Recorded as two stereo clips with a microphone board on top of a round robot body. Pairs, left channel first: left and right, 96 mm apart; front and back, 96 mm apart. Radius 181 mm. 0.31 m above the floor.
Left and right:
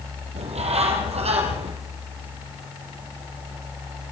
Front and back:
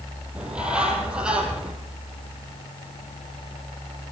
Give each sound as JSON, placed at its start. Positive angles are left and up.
{"t": 0.3, "sound": "a bird", "azimuth_deg": -100, "distance_m": 6.0}